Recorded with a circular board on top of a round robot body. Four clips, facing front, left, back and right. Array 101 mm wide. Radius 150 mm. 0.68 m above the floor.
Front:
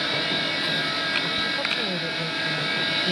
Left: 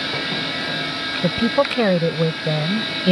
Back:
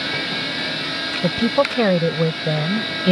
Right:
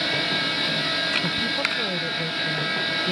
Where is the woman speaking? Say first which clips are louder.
Left 9 dB, back 11 dB; 140° left.